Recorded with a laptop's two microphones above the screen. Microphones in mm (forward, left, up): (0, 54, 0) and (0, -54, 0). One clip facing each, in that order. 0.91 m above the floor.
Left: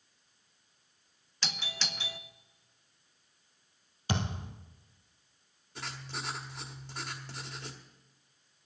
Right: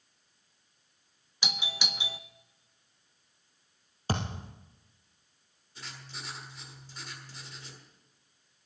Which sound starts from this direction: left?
Writing, at 5.8 s.